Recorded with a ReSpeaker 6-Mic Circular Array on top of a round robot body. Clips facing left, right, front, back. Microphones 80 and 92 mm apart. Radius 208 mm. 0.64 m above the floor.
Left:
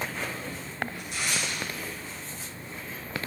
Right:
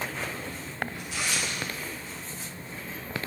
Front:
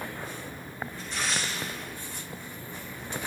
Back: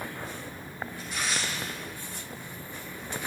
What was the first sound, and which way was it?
Tearing paper, 100° right.